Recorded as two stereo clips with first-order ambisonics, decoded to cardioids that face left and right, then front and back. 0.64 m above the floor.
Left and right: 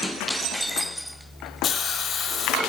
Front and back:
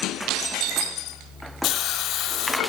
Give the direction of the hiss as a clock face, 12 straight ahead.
11 o'clock.